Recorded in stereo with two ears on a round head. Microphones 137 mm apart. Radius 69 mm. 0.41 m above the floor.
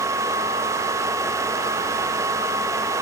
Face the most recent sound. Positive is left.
No sound to turn to.